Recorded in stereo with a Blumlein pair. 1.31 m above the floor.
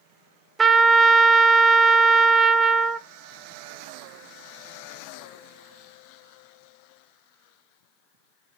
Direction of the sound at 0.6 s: 15° right.